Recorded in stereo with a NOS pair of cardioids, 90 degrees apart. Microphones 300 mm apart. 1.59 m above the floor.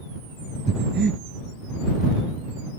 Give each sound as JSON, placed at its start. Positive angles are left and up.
{"t": 0.7, "sound": "breathing", "azimuth_deg": -35}